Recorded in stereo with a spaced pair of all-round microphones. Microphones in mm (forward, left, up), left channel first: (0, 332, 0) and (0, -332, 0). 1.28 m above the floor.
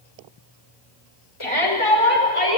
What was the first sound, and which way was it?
A shout, 45° left (ahead or behind).